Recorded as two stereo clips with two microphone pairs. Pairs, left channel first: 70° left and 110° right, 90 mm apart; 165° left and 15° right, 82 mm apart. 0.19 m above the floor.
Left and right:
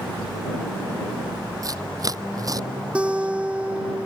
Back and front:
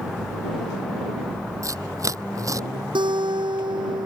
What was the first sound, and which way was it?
Tearing paper, 60° right.